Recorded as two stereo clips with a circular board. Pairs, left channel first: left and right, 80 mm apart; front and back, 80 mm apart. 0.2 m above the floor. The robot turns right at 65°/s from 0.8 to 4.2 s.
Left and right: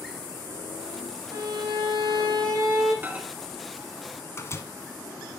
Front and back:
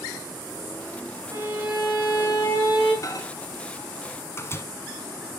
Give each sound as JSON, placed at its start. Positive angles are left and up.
{"t": 1.3, "sound": "a violin", "azimuth_deg": -130, "distance_m": 6.5}
{"t": 3.0, "sound": "a microwave", "azimuth_deg": -30, "distance_m": 1.2}